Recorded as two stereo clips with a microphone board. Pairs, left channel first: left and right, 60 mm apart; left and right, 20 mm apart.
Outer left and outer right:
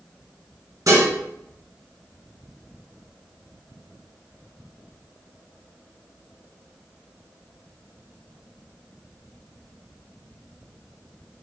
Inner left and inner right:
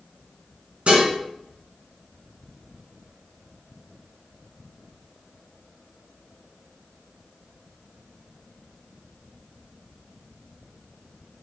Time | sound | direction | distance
0.9 | dishes clattering | 75° right (ahead or behind) | 1.9 m